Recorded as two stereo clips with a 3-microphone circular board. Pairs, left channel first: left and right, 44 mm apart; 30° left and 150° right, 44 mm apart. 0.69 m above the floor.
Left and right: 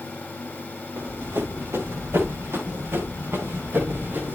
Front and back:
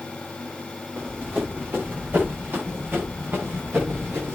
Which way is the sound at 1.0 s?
105° right.